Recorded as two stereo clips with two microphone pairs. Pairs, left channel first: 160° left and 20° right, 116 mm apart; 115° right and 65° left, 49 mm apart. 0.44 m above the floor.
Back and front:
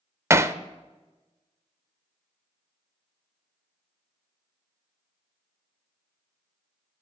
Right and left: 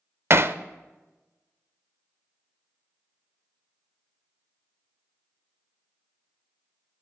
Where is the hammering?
45° left, 0.6 m.